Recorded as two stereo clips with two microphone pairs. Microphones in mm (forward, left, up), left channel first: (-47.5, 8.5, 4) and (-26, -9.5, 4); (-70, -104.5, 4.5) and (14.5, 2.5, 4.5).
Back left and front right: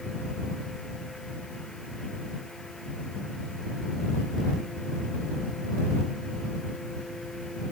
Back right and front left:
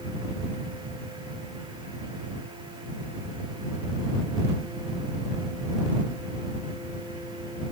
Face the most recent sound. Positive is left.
No sound to turn to.